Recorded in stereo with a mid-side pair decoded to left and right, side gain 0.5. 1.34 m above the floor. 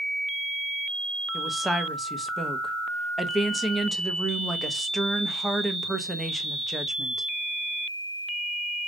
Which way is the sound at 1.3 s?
5° right.